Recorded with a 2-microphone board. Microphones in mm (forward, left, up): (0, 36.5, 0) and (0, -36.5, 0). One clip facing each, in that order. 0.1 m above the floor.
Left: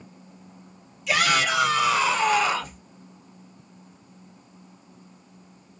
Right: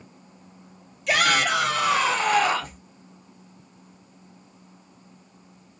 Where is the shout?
55° right (ahead or behind), 3 m; by 2.8 s 45° right (ahead or behind), 2.5 m.